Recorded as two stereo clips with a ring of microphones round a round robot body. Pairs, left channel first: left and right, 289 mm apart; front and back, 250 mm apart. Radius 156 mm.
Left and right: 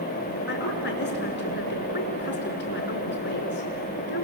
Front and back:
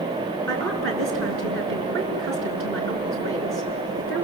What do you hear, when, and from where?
0.5 s a woman speaking: 145° left, 5.5 m